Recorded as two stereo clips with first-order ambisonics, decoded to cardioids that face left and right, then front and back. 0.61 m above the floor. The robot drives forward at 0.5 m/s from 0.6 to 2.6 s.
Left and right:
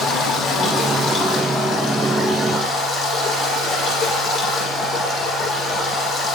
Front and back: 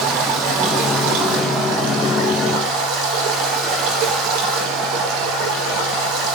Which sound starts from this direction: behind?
Running water, at 0.0 s.